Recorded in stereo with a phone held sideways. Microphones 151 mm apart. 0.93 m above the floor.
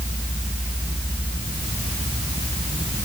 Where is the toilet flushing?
I don't hear a toilet flushing.